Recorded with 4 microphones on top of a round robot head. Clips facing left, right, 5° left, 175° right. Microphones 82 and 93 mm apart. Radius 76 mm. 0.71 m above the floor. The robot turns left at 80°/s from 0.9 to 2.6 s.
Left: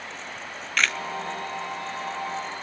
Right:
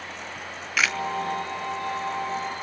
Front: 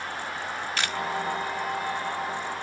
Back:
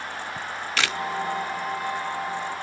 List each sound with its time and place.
0.4 s a camera shutter: 175° right, 0.8 m; by 1.0 s straight behind, 0.8 m